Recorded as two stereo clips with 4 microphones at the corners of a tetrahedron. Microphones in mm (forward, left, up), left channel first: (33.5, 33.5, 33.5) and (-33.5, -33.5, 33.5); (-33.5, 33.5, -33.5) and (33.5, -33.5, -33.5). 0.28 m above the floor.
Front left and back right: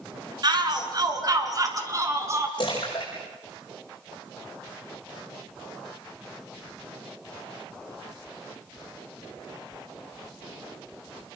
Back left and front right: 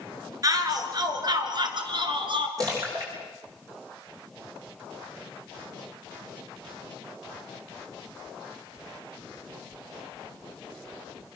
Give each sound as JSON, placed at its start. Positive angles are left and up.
{"t": 0.4, "sound": "a shout", "azimuth_deg": -95, "distance_m": 3.0}
{"t": 2.6, "sound": "a splash", "azimuth_deg": 5, "distance_m": 6.5}